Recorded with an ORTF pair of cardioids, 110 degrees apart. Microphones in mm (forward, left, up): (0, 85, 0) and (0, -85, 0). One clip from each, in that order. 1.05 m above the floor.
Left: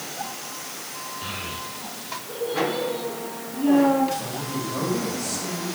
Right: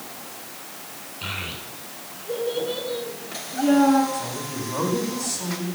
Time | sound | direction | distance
1.2 | a child speaking | 50° right | 7 m
4.1 | a woman speaking | 50° right | 8 m